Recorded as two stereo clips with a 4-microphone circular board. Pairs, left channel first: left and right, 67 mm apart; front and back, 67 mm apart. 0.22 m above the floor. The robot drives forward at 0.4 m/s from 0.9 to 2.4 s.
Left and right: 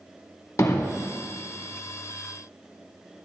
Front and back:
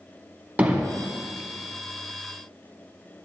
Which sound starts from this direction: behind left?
Hammering, at 0.6 s.